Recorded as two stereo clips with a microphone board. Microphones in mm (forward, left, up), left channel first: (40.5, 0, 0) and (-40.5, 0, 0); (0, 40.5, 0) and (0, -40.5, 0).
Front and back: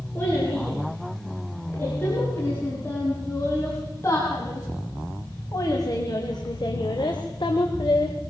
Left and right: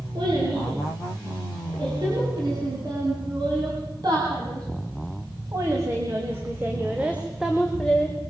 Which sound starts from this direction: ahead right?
A child speaking, at 0.1 s.